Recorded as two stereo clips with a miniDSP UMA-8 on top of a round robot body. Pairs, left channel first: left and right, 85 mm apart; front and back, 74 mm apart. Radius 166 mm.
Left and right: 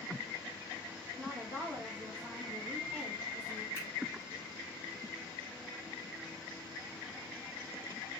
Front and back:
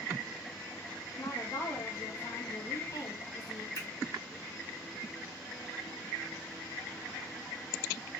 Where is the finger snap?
35° right, 3 m.